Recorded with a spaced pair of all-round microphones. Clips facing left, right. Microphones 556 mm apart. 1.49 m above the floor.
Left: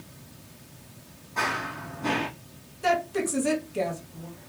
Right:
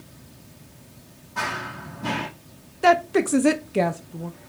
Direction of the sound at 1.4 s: 35° right (ahead or behind).